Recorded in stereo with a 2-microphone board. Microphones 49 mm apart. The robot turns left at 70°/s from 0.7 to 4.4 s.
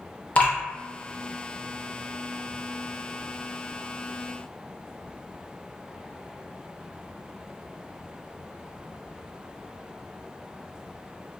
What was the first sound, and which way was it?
Dripping, 35° left (ahead or behind).